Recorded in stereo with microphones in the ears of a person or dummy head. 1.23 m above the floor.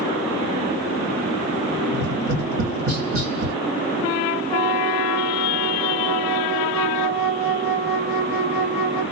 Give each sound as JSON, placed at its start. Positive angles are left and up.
{"t": 1.9, "sound": "tapping", "side_deg": -80, "distance_m": 1.1}
{"t": 4.5, "sound": "a flute", "side_deg": -70, "distance_m": 1.5}